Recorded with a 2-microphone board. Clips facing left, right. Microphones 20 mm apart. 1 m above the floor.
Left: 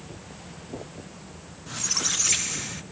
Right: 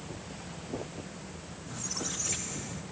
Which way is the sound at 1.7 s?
65° left (ahead or behind).